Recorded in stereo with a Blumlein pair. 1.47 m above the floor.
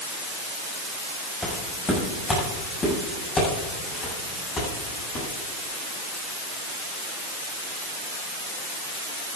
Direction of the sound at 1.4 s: 10° left.